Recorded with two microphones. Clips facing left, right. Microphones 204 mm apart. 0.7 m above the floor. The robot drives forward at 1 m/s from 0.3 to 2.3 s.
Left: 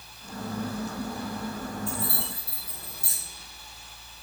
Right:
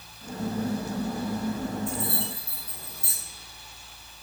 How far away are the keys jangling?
About 2.5 m.